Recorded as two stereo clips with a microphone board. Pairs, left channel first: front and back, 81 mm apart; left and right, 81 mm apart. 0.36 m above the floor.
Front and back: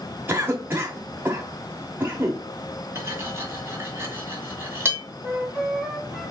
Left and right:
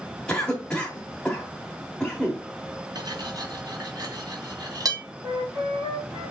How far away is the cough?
About 1.0 m.